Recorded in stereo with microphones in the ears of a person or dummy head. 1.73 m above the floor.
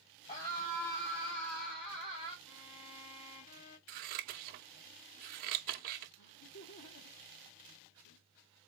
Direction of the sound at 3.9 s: 50° right (ahead or behind).